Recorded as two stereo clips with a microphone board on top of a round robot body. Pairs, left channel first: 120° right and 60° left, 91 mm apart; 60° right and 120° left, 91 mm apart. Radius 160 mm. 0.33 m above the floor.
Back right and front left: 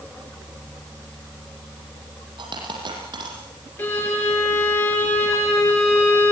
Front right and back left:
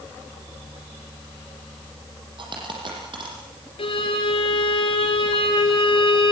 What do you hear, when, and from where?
2.4 s a dropped coin: 90° left, 7.5 m
3.8 s a violin: 55° right, 6 m